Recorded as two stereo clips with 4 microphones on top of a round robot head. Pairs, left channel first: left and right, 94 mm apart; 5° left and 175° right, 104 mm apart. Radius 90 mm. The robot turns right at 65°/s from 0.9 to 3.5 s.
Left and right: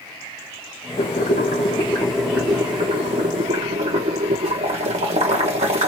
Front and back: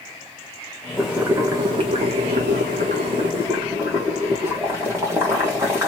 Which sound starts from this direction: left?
Boiling, at 1.0 s.